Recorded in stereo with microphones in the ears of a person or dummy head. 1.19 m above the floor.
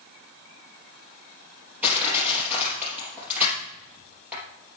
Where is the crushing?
10° right (ahead or behind), 4.5 m.